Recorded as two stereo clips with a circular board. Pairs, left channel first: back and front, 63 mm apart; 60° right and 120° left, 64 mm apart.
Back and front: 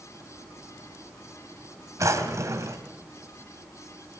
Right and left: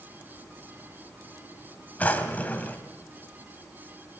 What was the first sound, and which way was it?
A drawer, straight ahead.